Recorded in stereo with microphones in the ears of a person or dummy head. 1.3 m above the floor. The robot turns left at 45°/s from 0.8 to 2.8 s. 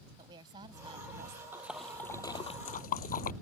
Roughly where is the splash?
Centre.